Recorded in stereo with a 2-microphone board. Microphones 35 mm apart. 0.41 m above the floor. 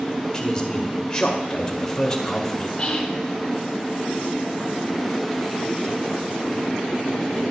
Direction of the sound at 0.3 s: 20° left (ahead or behind).